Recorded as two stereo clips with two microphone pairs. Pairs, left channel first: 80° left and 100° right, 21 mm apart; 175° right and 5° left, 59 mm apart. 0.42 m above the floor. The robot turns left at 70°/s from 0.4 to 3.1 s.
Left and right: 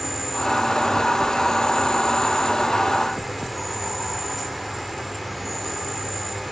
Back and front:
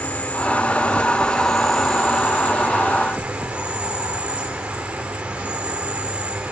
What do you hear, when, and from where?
0.0 s an insect: 175° left, 2 m; by 6.5 s 15° right, 2 m